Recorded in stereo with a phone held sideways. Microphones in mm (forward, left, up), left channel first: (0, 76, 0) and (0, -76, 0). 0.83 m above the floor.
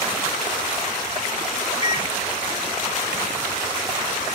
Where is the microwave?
35° left (ahead or behind), 1.2 m.